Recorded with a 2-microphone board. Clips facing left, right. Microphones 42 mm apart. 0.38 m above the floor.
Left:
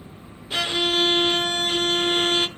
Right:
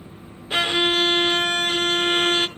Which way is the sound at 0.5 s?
30° right (ahead or behind).